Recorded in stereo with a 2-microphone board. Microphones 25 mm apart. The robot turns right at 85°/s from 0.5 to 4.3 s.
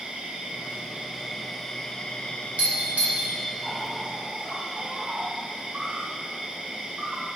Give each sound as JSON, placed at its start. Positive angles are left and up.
{"t": 0.0, "sound": "an insect", "azimuth_deg": -90, "distance_m": 1.5}
{"t": 2.6, "sound": "a doorbell", "side_deg": -60, "distance_m": 1.7}